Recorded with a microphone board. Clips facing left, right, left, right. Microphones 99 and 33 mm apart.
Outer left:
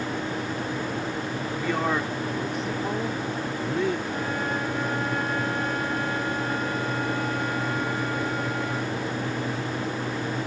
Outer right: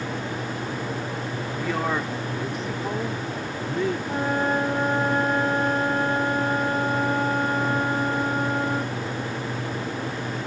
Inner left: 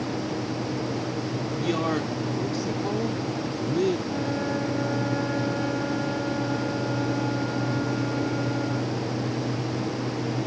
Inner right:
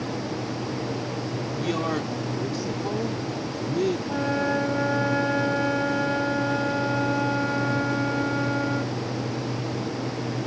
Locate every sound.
1.6 s a man speaking: centre (ahead or behind)
4.1 s a flute: 40° right (ahead or behind)